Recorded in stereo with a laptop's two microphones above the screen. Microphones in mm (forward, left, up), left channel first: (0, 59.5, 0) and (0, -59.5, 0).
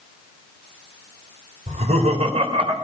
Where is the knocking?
I don't hear knocking.